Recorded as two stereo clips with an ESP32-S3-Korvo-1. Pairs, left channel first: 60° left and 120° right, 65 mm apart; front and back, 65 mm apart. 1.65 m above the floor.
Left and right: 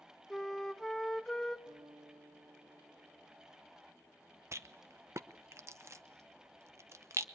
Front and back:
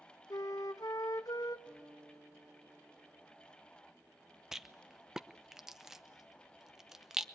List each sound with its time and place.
0.3 s a flute: 25° right, 1.1 m
1.7 s a guitar: 105° right, 4 m
4.5 s a rattle: 95° right, 0.8 m